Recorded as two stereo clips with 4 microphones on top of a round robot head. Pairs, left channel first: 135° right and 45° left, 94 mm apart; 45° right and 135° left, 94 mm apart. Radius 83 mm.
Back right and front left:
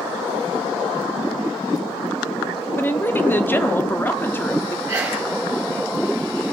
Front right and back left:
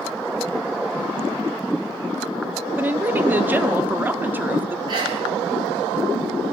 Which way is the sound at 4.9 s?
120° left.